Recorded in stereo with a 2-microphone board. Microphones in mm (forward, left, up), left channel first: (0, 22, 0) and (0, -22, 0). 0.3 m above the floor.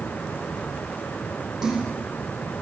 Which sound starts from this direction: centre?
A splash, at 1.6 s.